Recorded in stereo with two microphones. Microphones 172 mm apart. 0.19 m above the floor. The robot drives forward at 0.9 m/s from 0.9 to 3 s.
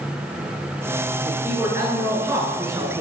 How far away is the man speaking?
About 4 m.